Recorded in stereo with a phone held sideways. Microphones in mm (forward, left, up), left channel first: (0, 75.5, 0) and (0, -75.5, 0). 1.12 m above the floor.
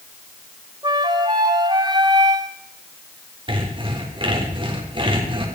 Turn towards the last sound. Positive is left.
turn(degrees=-35)  # may be behind; listen again after turning